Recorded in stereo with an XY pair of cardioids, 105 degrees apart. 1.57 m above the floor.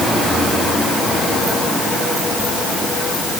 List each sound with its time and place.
Only background noise.